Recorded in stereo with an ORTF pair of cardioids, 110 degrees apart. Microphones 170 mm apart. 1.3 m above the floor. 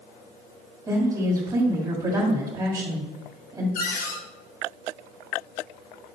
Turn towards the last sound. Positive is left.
turn(degrees=70)